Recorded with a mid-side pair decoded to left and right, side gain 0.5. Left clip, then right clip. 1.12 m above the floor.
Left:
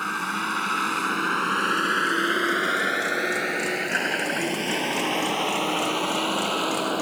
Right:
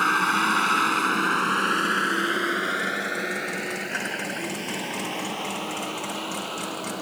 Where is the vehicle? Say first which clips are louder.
Right 6 dB; 40° right; by 7.0 s 45° left.